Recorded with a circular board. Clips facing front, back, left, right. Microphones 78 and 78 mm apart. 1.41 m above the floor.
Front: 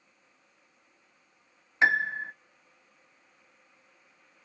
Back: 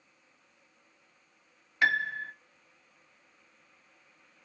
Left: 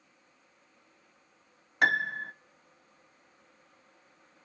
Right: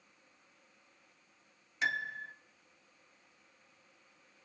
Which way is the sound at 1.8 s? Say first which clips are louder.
Front 3 dB, left 8 dB; 65° left.